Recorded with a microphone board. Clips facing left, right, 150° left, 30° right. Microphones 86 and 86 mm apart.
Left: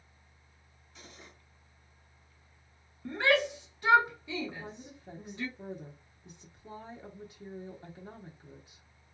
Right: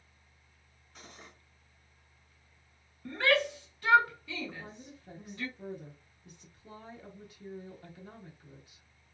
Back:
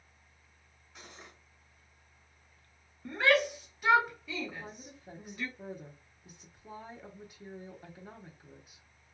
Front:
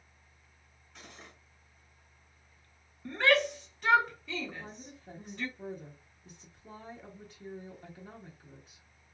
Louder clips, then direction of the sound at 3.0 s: Left 1 dB, even; 75° left.